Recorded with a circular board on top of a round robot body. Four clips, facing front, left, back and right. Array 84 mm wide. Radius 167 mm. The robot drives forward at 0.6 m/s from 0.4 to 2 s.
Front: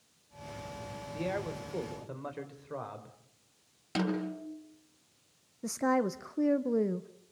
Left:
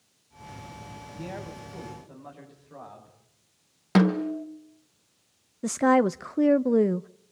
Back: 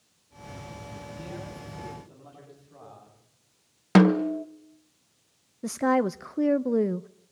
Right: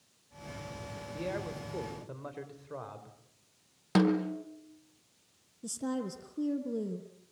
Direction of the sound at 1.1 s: 25° right.